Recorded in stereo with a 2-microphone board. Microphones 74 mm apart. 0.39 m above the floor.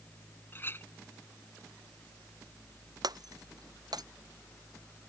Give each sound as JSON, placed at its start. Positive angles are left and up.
{"t": 0.5, "sound": "a clink", "side_deg": 30}
{"t": 3.0, "sound": "breaking glass", "side_deg": -65}